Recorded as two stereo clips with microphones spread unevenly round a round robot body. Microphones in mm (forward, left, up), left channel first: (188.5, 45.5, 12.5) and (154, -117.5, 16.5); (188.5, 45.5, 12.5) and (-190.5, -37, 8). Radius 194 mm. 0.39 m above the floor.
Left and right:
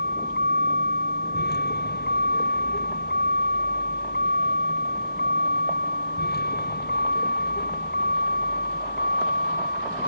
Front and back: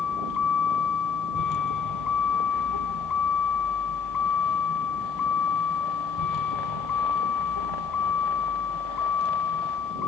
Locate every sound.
0.0 s a vehicle: 60° left; by 10.1 s 55° left